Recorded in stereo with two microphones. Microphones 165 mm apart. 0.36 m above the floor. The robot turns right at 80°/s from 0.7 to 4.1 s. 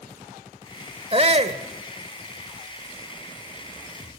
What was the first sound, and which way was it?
A shout, 115° right.